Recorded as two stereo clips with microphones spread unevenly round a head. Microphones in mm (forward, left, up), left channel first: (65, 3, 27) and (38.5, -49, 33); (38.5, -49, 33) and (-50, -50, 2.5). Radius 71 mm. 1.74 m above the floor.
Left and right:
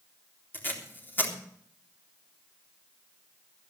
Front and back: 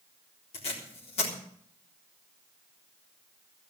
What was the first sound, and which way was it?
Tape being pulled, 5° left.